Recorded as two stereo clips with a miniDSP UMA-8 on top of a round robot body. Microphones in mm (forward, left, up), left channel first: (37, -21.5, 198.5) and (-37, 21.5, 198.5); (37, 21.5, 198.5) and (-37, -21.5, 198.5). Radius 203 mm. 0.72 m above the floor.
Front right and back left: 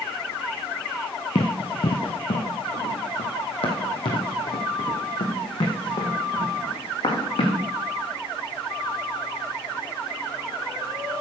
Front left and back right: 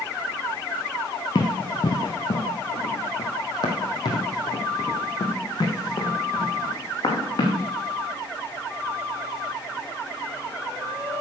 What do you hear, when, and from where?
1.4 s running footsteps: 10° right, 0.8 m; by 7.6 s 15° right, 4 m